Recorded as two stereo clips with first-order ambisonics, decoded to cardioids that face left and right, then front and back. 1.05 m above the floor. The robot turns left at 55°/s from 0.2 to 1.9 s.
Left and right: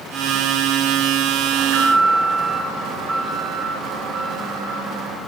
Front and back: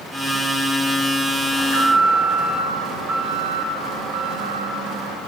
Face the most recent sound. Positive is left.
turn(degrees=-155)